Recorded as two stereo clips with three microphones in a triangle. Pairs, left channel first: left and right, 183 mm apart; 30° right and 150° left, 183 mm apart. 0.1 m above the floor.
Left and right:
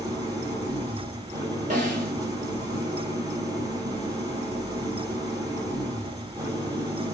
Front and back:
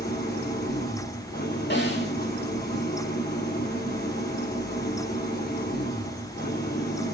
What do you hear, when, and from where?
0.0 s an engine running: 20° right, 3 m
1.7 s a snare drum: 45° right, 3 m